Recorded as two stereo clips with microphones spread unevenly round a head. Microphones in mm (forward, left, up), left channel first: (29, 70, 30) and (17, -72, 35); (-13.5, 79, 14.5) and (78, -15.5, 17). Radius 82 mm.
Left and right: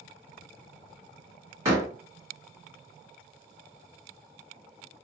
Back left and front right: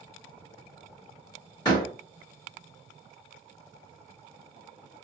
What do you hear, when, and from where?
1.6 s a door slam: 165° right, 1.8 m